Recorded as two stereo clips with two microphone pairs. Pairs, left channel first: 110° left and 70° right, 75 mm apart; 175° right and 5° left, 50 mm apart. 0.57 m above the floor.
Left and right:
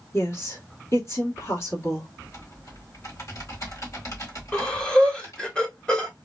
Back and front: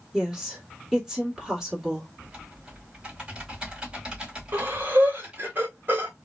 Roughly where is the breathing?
Ahead left.